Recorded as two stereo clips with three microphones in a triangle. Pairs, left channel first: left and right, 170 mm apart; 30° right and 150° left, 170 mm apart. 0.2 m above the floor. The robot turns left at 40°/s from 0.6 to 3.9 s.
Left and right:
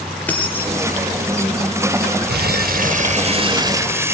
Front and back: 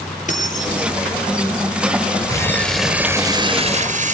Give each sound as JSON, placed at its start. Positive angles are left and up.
{"t": 0.3, "sound": "keys jangling", "azimuth_deg": 10, "distance_m": 3.5}
{"t": 2.3, "sound": "crumpling", "azimuth_deg": -100, "distance_m": 0.8}